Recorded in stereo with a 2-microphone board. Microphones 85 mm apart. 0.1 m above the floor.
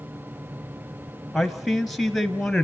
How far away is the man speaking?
About 1.4 m.